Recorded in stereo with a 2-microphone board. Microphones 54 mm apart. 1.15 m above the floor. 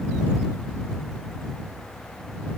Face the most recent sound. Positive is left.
No sound to turn to.